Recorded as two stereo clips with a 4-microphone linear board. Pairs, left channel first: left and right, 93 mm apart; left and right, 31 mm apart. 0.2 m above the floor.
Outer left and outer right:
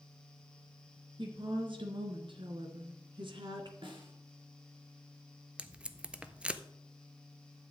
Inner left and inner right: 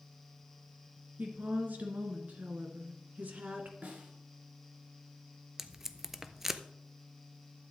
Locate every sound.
1.2 s a woman speaking: 60° right (ahead or behind), 2.5 m; by 3.7 s 55° right (ahead or behind), 1.8 m
3.8 s a snare drum: 60° right (ahead or behind), 2.5 m
5.6 s tape being pulled: 10° right (ahead or behind), 0.6 m